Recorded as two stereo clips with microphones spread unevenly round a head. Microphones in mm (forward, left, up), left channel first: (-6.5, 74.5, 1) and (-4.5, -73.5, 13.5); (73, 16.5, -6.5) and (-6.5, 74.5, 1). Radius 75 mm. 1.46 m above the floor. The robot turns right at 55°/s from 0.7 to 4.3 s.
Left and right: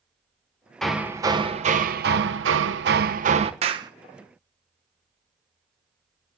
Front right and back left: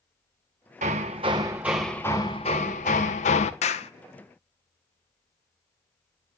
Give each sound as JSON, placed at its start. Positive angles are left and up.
{"t": 0.8, "sound": "hammering", "azimuth_deg": 180, "distance_m": 1.0}
{"t": 3.6, "sound": "a clap", "azimuth_deg": -40, "distance_m": 0.9}